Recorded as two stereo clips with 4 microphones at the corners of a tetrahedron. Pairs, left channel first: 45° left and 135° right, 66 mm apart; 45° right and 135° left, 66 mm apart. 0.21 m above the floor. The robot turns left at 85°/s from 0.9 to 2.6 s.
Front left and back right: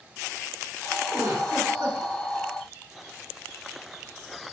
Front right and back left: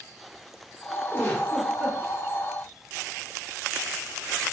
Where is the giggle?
95° right, 2.5 m; by 2.0 s 170° right, 2.5 m.